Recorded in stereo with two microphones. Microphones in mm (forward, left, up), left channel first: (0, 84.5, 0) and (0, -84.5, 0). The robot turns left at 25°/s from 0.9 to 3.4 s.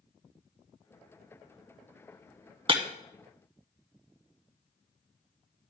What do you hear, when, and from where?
2.7 s breaking glass: 35° right (ahead or behind), 0.9 m; by 2.8 s 30° right (ahead or behind), 0.9 m